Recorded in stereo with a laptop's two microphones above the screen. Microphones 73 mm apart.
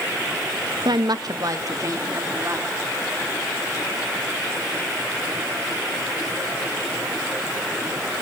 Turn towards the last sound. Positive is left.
turn(degrees=-40)  # may be behind; listen again after turning